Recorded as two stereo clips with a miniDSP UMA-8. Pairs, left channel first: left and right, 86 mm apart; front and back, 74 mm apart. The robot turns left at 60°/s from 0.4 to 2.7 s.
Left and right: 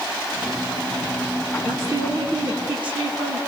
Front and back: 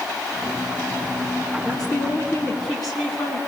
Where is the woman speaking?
20° right, 7 m; by 3.4 s 85° right, 7 m.